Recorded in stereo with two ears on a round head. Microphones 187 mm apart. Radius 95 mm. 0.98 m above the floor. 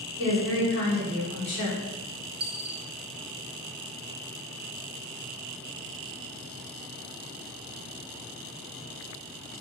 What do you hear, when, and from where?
0.2 s a woman speaking: 60° left (ahead or behind), 1.3 m
2.4 s a dropped coin: 25° right (ahead or behind), 1.0 m